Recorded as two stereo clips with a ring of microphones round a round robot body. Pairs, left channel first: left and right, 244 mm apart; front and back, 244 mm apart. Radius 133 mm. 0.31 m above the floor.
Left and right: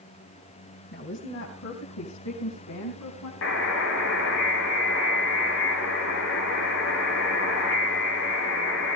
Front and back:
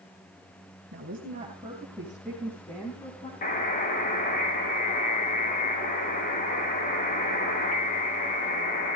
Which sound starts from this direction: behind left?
A woman speaking, at 0.9 s.